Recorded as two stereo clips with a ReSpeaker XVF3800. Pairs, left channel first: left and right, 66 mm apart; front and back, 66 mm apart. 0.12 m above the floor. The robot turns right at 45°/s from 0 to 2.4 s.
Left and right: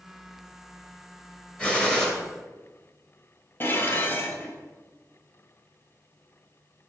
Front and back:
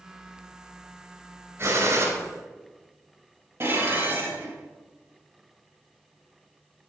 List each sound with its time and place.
1.6 s a gunshot: 150° left, 2.5 m; by 2.1 s 170° left, 2.5 m
3.6 s dishes clattering: 140° left, 1.6 m